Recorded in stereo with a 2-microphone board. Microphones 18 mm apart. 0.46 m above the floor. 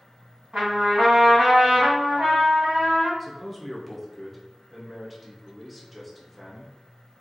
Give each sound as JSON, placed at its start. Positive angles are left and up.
{"t": 0.5, "sound": "a trumpet", "side_deg": -65, "distance_m": 1.9}
{"t": 3.2, "sound": "a man speaking", "side_deg": 0, "distance_m": 0.8}